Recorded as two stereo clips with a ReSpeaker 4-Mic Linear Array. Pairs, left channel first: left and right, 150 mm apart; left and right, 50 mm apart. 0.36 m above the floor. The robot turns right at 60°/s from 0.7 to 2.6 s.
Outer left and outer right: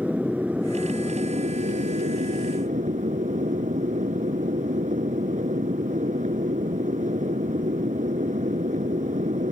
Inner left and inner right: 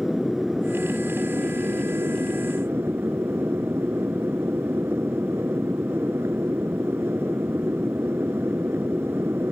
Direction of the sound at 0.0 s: 170° right.